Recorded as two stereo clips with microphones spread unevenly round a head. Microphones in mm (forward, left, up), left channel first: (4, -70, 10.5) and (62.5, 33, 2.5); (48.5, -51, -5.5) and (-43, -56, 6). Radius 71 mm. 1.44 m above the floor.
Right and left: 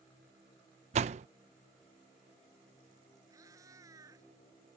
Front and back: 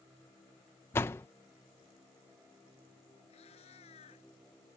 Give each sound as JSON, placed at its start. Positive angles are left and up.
{"t": 0.9, "sound": "a door slam", "azimuth_deg": 75}
{"t": 3.3, "sound": "a cat meowing", "azimuth_deg": 0}